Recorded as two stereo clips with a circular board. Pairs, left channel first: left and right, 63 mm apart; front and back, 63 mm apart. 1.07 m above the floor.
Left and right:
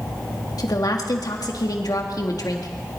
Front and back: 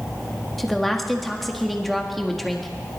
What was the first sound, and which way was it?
A woman speaking, 90° left.